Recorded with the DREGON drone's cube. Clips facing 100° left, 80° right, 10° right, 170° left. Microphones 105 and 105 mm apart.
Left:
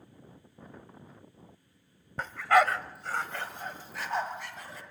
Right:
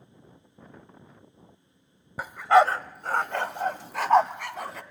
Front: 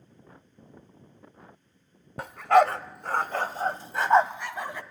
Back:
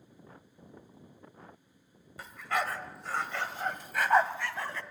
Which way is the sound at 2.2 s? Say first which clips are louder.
Right 5 dB, front 14 dB; straight ahead.